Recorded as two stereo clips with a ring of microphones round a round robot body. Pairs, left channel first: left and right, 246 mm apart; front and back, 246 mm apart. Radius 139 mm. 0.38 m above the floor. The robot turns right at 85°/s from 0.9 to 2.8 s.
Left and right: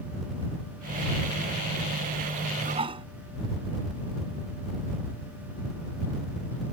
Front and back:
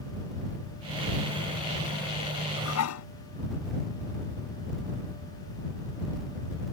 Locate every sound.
2.6 s dishes clattering: 40° right; by 3.0 s 20° right